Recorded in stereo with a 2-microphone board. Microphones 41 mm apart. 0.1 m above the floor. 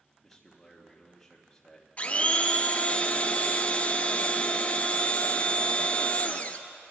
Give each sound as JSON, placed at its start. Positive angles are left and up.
{"t": 0.2, "sound": "a man speaking", "side_deg": 5, "distance_m": 3.0}
{"t": 2.0, "sound": "a blender", "side_deg": 35, "distance_m": 1.0}